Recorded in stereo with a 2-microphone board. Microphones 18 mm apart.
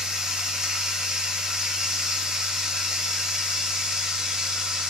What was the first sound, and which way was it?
Running water, 45° right (ahead or behind).